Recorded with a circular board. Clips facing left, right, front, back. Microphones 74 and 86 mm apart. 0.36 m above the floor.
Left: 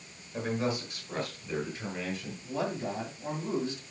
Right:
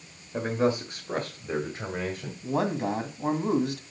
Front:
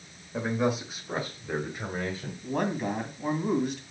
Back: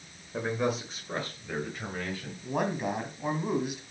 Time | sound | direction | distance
0.3 | a man speaking | 95° right | 1.6 m
2.4 | a man speaking | 100° right | 2 m